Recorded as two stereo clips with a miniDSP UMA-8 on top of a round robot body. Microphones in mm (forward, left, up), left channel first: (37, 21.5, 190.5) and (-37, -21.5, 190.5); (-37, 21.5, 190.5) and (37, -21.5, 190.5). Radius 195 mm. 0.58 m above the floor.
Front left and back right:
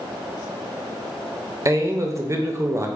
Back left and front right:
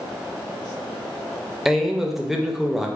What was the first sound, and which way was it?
A man speaking, 115° right.